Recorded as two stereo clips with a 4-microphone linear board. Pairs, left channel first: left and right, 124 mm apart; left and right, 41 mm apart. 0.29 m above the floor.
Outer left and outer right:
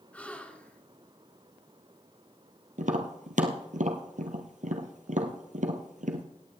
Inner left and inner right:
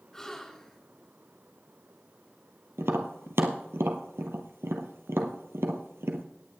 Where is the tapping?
85° right, 1.6 m.